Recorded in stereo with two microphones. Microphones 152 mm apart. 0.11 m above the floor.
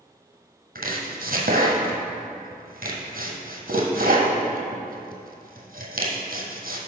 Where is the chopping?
70° right (ahead or behind), 1.2 m.